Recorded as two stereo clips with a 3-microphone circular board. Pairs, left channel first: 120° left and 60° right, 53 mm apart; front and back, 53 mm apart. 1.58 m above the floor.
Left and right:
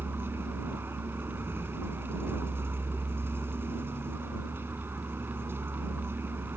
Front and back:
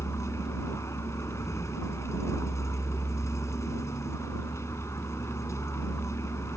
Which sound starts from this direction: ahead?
A vehicle, at 0.0 s.